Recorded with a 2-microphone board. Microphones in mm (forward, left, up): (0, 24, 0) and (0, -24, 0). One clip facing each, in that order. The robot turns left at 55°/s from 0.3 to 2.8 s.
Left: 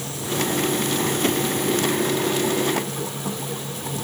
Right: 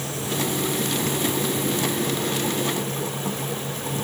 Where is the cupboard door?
I don't hear a cupboard door.